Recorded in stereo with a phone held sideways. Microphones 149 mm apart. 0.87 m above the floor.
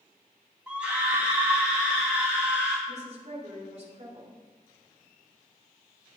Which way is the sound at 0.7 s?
10° right (ahead or behind).